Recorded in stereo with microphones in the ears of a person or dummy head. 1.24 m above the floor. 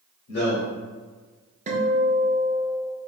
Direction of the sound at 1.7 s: 35° right (ahead or behind).